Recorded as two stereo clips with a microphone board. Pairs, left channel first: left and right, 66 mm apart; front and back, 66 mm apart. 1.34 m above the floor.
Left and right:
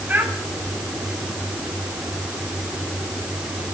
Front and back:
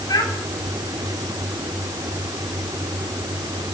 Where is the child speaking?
25° right, 7 m.